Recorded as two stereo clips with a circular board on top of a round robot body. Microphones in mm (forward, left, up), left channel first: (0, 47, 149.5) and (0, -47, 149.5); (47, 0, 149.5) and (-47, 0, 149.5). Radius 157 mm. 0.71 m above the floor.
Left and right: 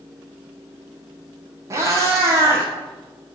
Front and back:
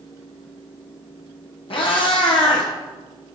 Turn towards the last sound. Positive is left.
turn(degrees=-30)